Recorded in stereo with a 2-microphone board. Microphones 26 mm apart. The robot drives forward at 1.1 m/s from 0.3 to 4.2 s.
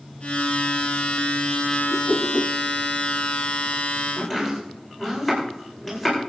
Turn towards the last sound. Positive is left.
turn(degrees=-5)  # may be behind; listen again after turning